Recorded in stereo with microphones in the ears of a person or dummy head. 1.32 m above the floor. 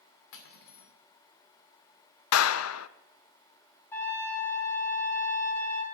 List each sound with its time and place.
0.3 s cutlery clinking: 70° left (ahead or behind), 1.9 m
2.3 s a clap: 85° left, 0.5 m
3.9 s a trumpet: 10° left (ahead or behind), 4 m